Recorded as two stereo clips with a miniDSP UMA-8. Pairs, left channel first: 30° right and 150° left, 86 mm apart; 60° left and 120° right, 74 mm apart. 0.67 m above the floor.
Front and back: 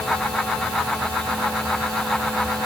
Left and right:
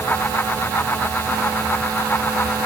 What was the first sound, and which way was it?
Only background noise.